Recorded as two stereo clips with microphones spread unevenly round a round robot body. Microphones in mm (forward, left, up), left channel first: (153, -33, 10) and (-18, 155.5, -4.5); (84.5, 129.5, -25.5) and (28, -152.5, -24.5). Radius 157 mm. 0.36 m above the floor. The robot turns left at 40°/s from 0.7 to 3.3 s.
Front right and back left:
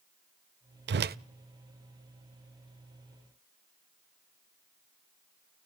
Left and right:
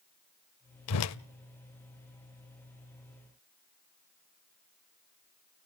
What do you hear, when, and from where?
0.9 s a whoosh: 100° left, 0.5 m; by 1.2 s 90° left, 0.5 m